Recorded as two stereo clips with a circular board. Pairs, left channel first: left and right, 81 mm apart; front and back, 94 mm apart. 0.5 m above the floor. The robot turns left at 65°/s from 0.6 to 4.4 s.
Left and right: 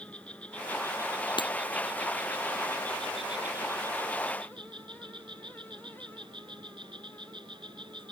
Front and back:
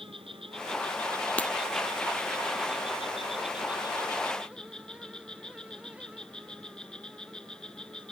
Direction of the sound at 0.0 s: 165° left.